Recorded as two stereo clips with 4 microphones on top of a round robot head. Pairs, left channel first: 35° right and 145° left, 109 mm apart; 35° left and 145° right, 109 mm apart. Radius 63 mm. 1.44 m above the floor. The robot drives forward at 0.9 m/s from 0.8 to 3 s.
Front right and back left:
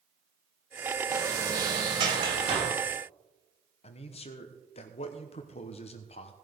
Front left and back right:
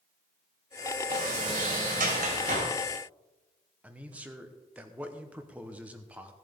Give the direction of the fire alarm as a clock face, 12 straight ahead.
I don't hear a fire alarm.